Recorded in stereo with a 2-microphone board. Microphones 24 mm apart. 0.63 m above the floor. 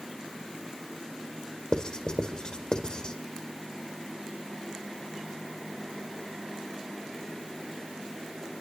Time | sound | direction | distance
1.7 | writing | 40° left (ahead or behind) | 1.9 m